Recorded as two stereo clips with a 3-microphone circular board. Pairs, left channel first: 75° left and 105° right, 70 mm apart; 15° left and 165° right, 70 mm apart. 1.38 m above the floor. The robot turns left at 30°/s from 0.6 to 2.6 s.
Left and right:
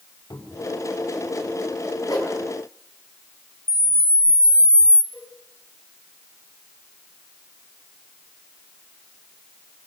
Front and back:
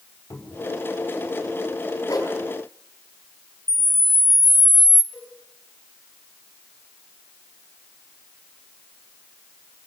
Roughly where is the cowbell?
Left.